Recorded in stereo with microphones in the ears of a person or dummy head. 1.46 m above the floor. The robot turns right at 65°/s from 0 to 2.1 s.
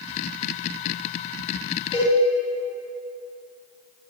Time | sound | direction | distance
1.9 | a cowbell | 25° left (ahead or behind) | 2.5 m